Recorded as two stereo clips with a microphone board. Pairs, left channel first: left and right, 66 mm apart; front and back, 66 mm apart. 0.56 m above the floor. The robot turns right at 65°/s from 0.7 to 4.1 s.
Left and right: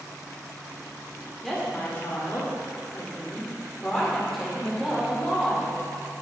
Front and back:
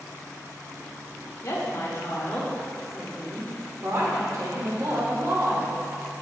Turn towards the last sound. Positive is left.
turn(degrees=180)